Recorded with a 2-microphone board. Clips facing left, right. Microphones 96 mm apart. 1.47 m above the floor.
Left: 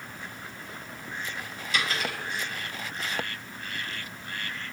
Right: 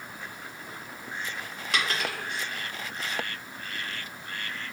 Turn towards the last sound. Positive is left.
turn(degrees=-70)  # may be behind; listen again after turning